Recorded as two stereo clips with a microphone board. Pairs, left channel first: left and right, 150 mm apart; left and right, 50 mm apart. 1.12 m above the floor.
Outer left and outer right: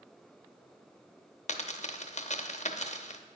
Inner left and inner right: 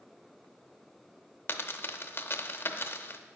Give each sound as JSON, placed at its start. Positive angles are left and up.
{"t": 1.5, "sound": "a dropped coin", "side_deg": 50, "distance_m": 0.7}